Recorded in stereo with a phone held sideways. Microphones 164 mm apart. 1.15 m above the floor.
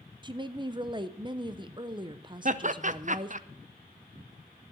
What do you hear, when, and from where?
0.2 s a woman speaking: 30° right (ahead or behind), 0.6 m
2.5 s laughter: 50° right (ahead or behind), 0.6 m